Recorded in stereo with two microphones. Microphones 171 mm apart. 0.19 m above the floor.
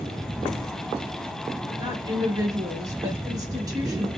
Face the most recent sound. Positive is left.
turn(degrees=-20)  # may be behind; listen again after turning